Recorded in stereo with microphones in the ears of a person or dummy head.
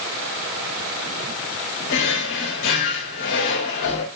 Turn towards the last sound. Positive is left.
turn(degrees=55)  # may be behind; listen again after turning